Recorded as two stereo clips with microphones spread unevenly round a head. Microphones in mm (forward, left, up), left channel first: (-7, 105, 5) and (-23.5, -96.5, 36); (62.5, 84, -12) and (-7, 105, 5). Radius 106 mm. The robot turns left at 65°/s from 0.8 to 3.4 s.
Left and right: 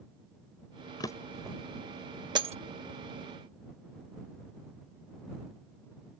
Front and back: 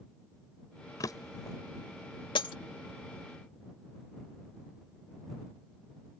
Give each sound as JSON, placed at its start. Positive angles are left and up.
{"t": 1.0, "sound": "a drawer", "azimuth_deg": 10}
{"t": 2.4, "sound": "breaking glass", "azimuth_deg": -30}